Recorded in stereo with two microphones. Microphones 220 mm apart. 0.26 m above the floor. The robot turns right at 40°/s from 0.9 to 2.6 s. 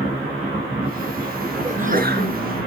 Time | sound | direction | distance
1.6 | a sneeze | 30° right (ahead or behind) | 4 m